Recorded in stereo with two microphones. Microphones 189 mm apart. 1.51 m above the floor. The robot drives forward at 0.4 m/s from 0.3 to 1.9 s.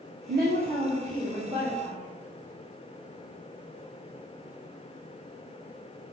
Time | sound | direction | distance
0.3 | a woman speaking | 55° right (ahead or behind) | 0.6 m